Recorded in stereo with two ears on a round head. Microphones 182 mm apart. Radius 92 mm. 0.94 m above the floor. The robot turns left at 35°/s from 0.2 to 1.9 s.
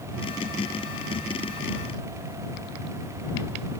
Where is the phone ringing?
I don't hear a phone ringing.